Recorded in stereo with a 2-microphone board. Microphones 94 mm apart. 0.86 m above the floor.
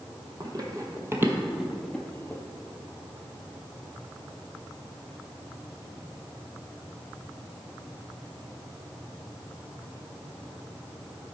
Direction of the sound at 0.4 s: 45° right (ahead or behind).